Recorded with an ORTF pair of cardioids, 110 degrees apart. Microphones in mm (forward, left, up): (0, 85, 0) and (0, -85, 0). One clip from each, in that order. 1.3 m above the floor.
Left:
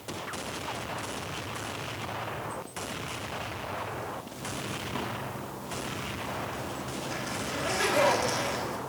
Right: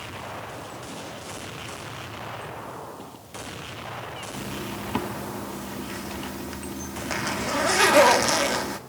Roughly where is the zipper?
Ahead right.